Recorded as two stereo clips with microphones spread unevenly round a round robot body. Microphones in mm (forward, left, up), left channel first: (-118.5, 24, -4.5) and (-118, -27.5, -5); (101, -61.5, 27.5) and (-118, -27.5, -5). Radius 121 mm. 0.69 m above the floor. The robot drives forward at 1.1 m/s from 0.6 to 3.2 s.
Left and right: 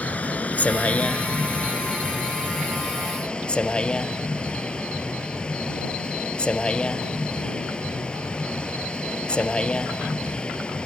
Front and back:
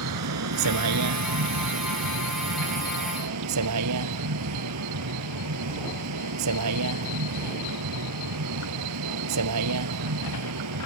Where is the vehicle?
155° left; by 10.9 s 160° left.